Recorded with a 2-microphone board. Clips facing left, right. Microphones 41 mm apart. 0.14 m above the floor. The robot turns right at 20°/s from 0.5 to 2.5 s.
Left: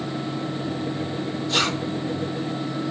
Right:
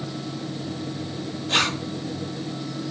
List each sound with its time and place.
1.5 s a zipper: 45° right (ahead or behind), 2 m